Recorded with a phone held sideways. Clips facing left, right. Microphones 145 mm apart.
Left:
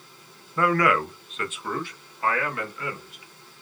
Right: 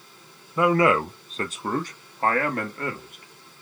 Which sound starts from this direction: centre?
A man speaking, at 0.6 s.